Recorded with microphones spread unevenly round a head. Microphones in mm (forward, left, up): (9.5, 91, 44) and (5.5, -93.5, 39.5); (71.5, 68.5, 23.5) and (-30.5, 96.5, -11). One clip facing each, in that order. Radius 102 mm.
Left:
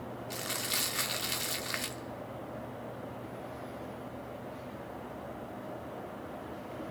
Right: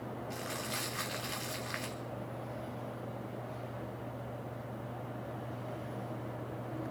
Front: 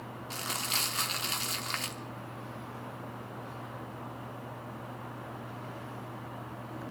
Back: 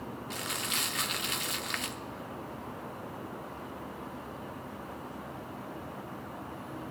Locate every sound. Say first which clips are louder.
0.3 s crumpling: even, front 2 dB; 45° left, 1.1 m